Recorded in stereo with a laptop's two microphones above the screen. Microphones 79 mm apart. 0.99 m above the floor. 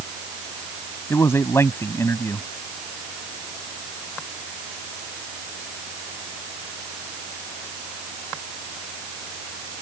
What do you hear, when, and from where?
1.1 s a man speaking: 35° left (ahead or behind)